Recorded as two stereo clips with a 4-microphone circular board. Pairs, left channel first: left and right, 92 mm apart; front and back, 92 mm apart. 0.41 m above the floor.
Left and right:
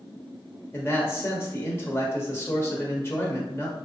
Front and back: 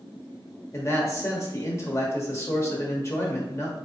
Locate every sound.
0.7 s a man speaking: 40° left, 1.0 m